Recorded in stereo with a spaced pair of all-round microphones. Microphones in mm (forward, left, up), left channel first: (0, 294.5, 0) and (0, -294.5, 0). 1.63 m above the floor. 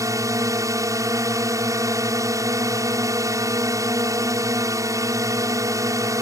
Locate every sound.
0.0 s a drone: 5° right (ahead or behind)